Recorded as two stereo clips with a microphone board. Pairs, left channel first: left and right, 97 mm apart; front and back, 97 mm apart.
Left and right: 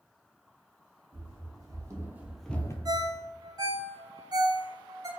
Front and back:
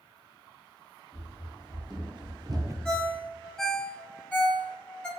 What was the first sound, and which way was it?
Running footsteps, 130° right.